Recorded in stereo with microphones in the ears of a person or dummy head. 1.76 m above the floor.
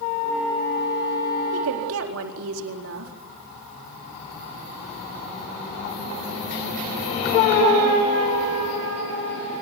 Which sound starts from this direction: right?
A woman speaking, at 1.5 s.